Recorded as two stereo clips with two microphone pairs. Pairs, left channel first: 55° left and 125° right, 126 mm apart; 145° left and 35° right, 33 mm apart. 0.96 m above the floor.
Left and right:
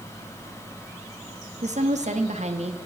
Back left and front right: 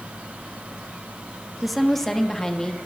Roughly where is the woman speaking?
Behind right.